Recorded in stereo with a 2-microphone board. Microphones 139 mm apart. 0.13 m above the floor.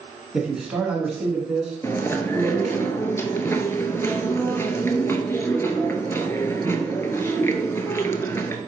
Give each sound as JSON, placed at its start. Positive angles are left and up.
{"t": 0.3, "sound": "a man speaking", "side_deg": -5, "distance_m": 1.1}
{"t": 1.8, "sound": "chewing", "side_deg": 20, "distance_m": 0.5}